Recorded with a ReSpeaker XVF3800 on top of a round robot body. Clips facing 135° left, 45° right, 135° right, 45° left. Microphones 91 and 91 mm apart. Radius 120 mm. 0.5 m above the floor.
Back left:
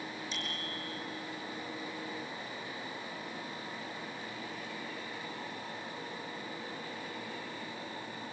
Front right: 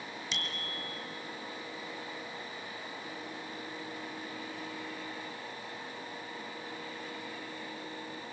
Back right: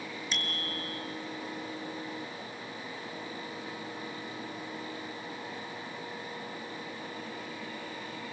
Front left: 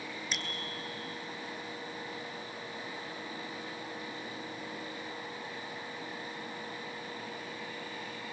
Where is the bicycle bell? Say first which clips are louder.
Even, back right 4 dB; 40° right, 6 m.